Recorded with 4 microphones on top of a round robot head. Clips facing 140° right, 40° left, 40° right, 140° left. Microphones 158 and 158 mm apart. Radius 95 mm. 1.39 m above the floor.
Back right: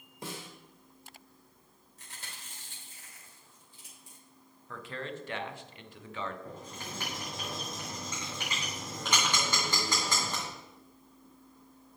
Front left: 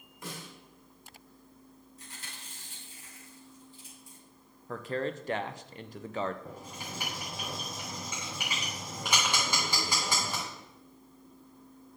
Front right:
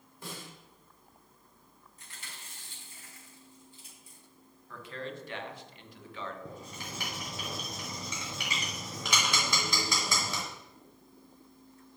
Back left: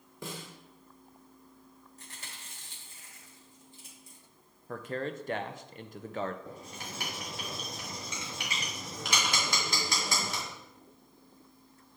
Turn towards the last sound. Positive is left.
turn(degrees=-40)